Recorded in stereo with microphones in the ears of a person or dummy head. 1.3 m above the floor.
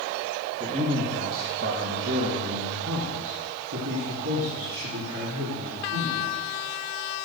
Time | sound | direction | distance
0.6 | a man speaking | 30° right (ahead or behind) | 1.6 m